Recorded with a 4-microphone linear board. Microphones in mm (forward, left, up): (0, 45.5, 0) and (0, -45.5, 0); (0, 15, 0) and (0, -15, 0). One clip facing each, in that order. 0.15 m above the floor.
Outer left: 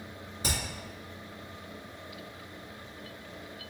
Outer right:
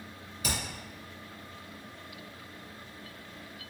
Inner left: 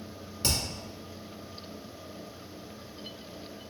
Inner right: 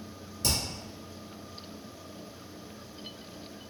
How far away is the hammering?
About 1.6 m.